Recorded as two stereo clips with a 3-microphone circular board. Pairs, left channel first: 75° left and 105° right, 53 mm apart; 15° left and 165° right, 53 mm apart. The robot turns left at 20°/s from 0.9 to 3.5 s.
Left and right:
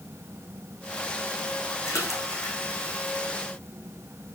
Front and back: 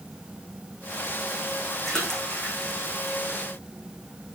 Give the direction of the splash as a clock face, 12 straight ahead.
9 o'clock.